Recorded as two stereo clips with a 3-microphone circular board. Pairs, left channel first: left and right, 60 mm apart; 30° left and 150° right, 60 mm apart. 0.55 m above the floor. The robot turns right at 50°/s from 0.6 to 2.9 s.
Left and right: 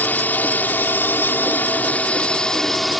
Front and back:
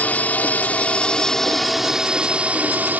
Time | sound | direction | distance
0.0 | a drone | 65° left | ?